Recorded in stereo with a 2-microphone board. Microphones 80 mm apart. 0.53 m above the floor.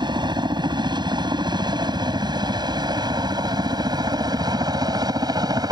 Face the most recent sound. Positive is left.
turn(degrees=-50)  # may be behind; listen again after turning